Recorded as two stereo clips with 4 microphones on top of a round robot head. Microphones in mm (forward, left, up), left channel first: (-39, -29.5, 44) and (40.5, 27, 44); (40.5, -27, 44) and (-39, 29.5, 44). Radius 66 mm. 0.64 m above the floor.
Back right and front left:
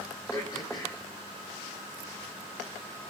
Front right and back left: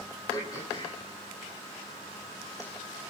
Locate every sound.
0.3 s throat clearing: 90° right, 10 m